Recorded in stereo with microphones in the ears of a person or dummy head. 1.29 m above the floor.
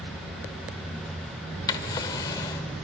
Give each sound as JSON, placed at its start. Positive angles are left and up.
{"t": 1.7, "sound": "a drawer", "side_deg": 20, "distance_m": 1.2}